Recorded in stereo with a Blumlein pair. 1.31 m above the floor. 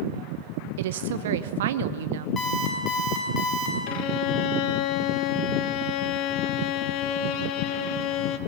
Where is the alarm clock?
15° left, 6 m.